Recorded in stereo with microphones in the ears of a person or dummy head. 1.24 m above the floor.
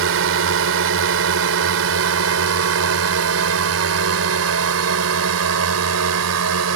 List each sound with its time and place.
0.0 s a drone: 65° right (ahead or behind); by 6.8 s 80° right